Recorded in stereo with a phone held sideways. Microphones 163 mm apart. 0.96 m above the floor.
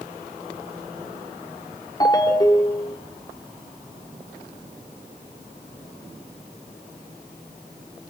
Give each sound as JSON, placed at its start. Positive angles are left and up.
{"t": 2.0, "sound": "a ringtone", "side_deg": 25, "distance_m": 1.9}